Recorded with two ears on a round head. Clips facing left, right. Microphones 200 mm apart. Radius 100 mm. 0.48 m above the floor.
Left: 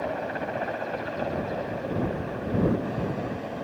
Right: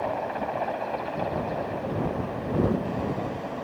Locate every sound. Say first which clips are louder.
0.0 s a helicopter: right 1 dB; 15° left (ahead or behind)